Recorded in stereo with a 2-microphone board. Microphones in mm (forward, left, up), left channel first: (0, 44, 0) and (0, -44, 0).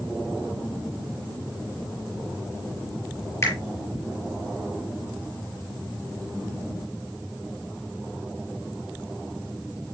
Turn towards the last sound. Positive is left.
turn(degrees=30)  # may be behind; listen again after turning